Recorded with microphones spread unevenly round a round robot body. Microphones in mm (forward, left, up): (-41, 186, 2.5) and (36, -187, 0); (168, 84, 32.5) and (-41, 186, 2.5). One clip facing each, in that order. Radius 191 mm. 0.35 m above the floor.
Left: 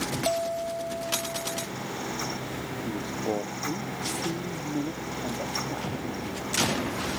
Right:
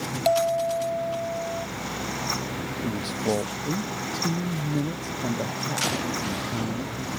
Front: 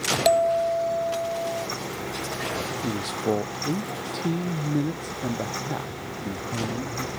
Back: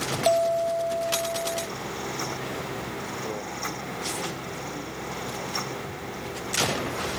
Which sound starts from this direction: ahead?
A bell, at 0.2 s.